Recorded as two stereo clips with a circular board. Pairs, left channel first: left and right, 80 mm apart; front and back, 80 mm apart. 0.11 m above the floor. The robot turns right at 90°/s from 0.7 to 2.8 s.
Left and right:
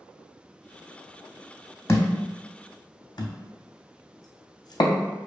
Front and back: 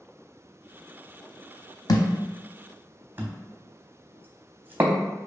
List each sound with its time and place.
1.9 s a thud: 35° left, 0.5 m; by 5.0 s 120° left, 0.5 m